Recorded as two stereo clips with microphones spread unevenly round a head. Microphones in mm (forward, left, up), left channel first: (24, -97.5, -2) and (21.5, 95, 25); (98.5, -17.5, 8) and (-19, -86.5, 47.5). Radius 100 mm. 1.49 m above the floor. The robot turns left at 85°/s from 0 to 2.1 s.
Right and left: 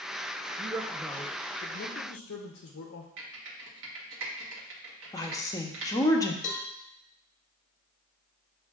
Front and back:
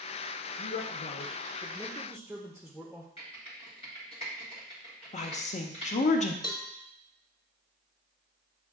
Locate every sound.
0.6 s a man speaking: 50° left, 0.6 m; by 3.1 s 80° right, 0.6 m
3.2 s typing on a keyboard: 100° left, 1.1 m
5.1 s a woman speaking: 15° right, 0.7 m
6.4 s a cowbell: 35° right, 0.8 m